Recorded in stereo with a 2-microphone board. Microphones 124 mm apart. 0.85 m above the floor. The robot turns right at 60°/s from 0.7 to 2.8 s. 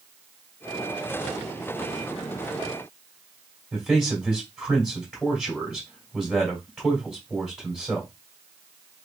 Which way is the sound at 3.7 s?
Centre (ahead or behind).